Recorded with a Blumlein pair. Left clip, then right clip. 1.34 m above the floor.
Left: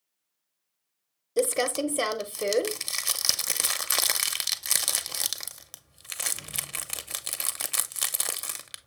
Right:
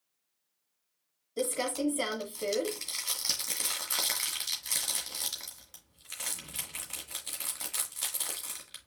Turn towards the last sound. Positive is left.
turn(degrees=55)